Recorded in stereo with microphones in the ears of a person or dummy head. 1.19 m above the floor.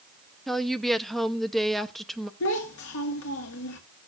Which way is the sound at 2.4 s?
75° left (ahead or behind).